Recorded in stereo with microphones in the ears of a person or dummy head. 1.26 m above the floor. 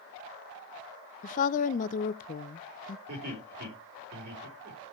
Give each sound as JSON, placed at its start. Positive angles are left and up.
{"t": 1.2, "sound": "a woman speaking", "side_deg": 45, "distance_m": 0.6}
{"t": 3.1, "sound": "laughter", "side_deg": -50, "distance_m": 4.5}